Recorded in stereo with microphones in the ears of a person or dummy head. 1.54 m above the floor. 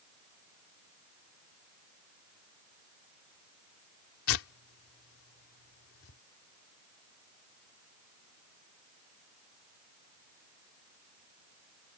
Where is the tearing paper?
80° left.